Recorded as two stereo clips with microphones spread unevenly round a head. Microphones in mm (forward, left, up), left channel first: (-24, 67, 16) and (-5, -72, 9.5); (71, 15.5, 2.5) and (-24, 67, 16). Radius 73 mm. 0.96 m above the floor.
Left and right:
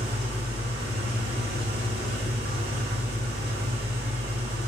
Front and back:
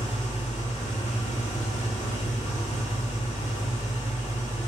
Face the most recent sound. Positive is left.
turn(degrees=-90)